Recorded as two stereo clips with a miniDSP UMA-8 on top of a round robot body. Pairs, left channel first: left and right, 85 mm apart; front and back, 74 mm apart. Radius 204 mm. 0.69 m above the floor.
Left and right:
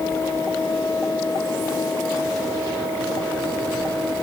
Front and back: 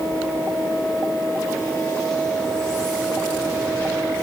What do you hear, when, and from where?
Only background noise.